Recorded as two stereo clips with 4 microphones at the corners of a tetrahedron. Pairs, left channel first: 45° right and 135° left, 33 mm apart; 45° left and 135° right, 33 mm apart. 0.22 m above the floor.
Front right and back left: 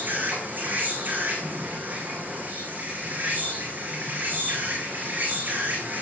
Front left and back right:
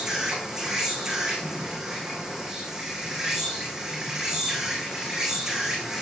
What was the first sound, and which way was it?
An insect, 150° left.